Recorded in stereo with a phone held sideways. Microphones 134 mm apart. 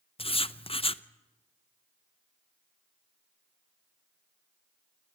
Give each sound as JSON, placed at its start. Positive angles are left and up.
{"t": 0.2, "sound": "writing", "side_deg": 45, "distance_m": 0.7}